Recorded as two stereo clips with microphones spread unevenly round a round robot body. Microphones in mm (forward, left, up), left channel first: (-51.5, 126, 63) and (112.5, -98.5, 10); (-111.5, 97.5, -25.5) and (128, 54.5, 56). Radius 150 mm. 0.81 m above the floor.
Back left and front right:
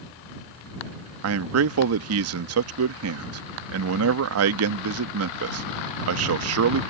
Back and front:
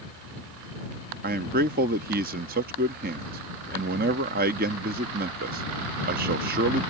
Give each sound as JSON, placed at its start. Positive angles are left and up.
{"t": 1.2, "sound": "a man speaking", "azimuth_deg": -75}